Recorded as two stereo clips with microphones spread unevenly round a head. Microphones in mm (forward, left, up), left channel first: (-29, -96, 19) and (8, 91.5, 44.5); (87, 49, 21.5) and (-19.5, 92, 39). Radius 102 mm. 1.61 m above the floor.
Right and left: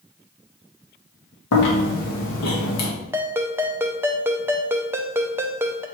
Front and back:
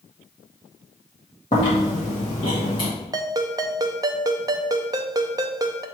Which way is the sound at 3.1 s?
140° left.